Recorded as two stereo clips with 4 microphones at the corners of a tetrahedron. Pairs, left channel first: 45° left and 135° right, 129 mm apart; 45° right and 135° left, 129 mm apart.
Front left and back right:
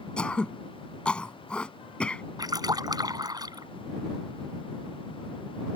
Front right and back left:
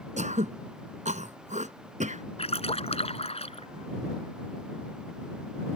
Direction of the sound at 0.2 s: 125° left.